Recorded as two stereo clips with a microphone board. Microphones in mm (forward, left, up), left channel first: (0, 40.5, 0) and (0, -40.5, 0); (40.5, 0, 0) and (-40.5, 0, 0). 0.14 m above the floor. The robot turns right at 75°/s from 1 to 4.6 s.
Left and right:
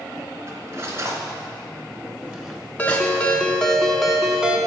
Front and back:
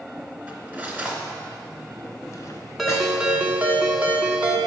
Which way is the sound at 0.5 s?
120° right.